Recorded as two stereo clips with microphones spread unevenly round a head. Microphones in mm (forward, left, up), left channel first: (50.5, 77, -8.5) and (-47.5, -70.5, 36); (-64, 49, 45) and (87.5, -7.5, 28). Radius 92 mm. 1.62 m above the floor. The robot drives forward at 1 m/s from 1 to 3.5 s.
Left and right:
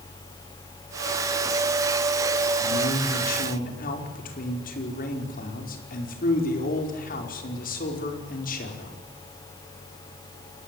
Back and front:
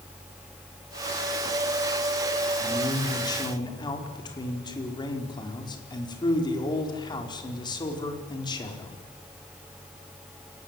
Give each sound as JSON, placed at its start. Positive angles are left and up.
{"t": 2.6, "sound": "a man speaking", "azimuth_deg": 85, "distance_m": 5.0}